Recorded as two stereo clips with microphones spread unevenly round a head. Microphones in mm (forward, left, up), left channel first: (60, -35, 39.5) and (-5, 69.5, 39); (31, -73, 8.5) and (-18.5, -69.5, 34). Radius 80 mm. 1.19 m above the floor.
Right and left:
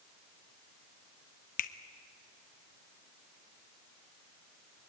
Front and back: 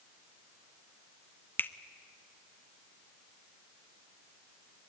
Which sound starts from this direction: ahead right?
A finger snap, at 1.6 s.